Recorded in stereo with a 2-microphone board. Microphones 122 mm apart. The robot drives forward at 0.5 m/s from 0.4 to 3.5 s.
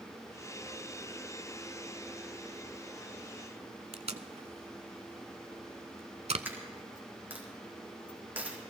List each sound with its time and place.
3.9 s tape being pulled: 65° right (ahead or behind), 0.6 m
6.5 s a dropped coin: 15° right (ahead or behind), 2.5 m